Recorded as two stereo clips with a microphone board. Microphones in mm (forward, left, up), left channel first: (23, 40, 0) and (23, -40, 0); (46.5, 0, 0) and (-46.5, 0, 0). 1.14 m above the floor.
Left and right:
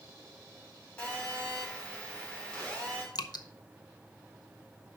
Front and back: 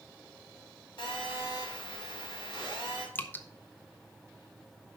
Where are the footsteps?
I don't hear footsteps.